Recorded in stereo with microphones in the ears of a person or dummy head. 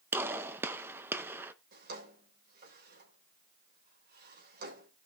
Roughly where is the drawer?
Right.